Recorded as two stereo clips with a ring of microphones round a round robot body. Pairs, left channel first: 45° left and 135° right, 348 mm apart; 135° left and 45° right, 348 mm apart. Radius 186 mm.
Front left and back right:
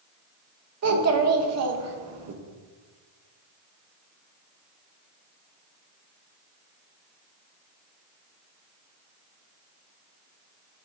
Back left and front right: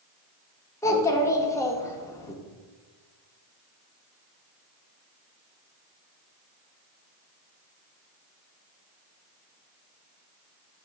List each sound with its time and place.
0.8 s a child speaking: 145° right, 1.0 m